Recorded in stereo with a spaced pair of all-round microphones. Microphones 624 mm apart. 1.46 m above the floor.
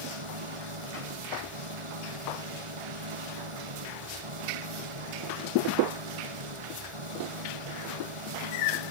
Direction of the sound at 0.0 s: 50° right (ahead or behind).